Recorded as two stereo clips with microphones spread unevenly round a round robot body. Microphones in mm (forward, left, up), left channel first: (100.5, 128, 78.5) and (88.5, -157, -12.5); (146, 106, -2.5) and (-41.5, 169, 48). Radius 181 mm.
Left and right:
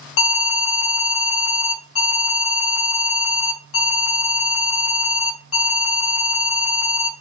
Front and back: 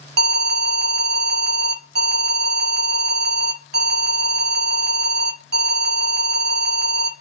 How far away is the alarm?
About 0.8 m.